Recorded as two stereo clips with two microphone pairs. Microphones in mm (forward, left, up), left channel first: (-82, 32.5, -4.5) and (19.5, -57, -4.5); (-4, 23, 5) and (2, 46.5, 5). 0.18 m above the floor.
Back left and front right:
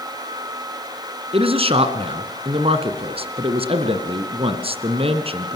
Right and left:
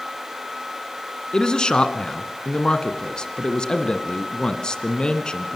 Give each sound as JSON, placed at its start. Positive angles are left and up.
{"t": 1.3, "sound": "a man speaking", "azimuth_deg": -60, "distance_m": 1.6}